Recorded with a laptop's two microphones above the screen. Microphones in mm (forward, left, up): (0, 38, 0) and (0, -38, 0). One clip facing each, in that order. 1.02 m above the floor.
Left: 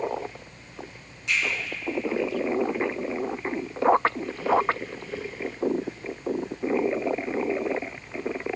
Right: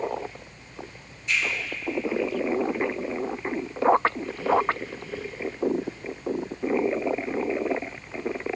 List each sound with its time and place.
1.3 s a finger snap: 75° left (ahead or behind), 1.4 m